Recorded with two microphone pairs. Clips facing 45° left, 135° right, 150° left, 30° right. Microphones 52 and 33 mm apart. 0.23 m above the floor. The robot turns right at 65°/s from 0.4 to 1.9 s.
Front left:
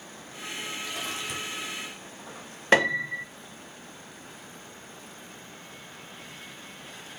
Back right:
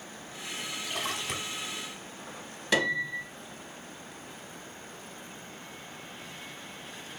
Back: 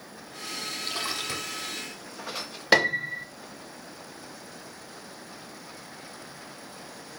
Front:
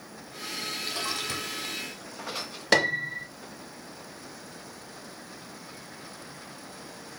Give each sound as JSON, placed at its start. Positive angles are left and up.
{"t": 0.8, "sound": "a splash", "azimuth_deg": -155, "distance_m": 1.0}
{"t": 2.7, "sound": "a piano", "azimuth_deg": 75, "distance_m": 0.7}